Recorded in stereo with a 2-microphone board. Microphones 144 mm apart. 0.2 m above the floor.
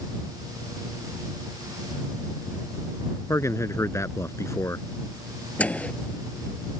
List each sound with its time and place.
3.3 s a man speaking: 20° left (ahead or behind)
5.6 s a microwave: 10° left (ahead or behind)